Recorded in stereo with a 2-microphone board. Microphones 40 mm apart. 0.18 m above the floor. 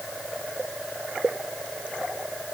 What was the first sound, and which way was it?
Only background noise.